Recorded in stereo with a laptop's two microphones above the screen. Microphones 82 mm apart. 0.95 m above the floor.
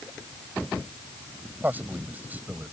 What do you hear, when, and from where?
1.6 s a man speaking: 20° right (ahead or behind)